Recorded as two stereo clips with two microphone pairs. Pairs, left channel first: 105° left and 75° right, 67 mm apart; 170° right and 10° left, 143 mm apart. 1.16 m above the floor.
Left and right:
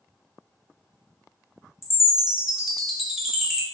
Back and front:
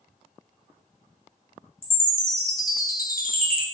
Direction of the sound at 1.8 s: 155° right.